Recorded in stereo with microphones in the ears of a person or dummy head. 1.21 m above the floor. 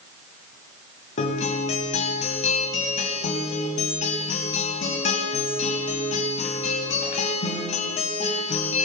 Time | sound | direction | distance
1.2 | a guitar | 40° left (ahead or behind) | 1.7 m